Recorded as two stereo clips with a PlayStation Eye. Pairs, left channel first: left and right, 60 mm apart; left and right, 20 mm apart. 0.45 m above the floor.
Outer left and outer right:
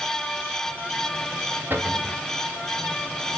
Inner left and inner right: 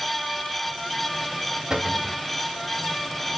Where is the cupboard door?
30° right (ahead or behind), 1.1 m.